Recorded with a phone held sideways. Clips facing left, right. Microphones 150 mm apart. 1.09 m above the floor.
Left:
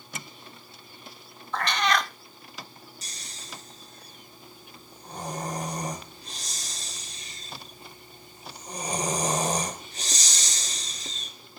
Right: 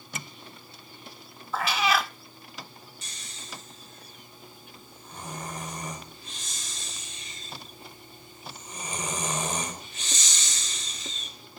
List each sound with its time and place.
1.5 s a cat meowing: 5° right (ahead or behind), 0.6 m
3.0 s snoring: 40° left (ahead or behind), 3.5 m